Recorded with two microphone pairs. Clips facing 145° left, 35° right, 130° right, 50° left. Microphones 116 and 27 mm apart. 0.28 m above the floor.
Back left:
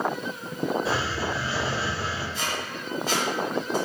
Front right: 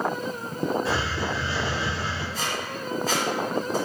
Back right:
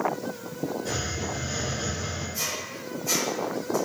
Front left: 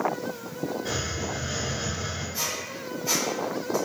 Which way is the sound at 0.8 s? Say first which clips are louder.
Even, even; 80° left.